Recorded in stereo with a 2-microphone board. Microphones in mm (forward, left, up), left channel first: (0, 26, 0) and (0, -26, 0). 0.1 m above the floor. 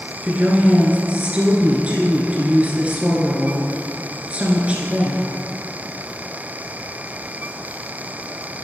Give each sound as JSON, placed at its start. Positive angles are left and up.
{"t": 0.2, "sound": "a woman speaking", "side_deg": -25, "distance_m": 1.6}